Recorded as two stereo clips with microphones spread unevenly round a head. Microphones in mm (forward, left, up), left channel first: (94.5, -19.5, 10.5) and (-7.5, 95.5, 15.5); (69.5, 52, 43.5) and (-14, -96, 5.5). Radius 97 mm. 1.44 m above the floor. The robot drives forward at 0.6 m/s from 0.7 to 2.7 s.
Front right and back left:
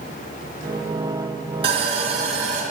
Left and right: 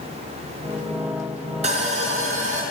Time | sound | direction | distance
1.6 | sawing | straight behind | 1.8 m